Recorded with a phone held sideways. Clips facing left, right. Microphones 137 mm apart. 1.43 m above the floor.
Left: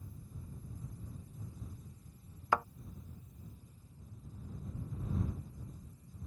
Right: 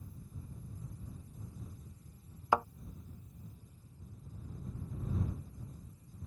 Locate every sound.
2.5 s a thud: 15° right (ahead or behind)